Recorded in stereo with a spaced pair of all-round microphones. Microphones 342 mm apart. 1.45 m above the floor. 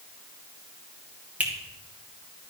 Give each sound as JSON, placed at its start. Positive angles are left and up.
{"t": 1.4, "sound": "a finger snap", "side_deg": -5, "distance_m": 1.6}